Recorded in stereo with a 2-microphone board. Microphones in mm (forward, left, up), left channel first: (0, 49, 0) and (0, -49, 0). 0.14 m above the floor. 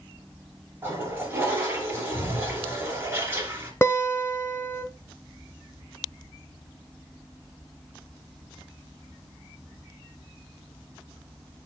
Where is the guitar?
25° left (ahead or behind), 0.7 m.